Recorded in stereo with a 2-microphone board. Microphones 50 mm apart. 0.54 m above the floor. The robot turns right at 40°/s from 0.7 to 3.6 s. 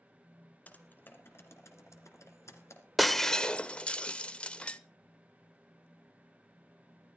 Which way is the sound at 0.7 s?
35° left (ahead or behind).